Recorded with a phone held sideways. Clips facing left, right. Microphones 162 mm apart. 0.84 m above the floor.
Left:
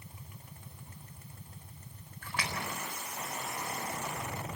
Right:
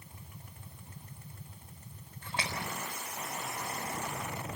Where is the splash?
25° right (ahead or behind), 4 m.